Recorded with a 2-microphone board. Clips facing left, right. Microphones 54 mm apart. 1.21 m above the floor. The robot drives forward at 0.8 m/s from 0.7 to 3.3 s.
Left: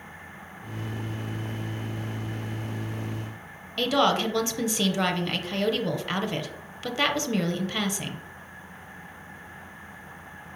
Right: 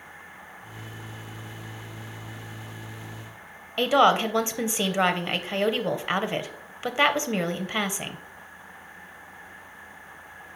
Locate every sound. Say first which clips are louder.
3.8 s a woman speaking: right 3 dB; 25° right (ahead or behind), 0.6 m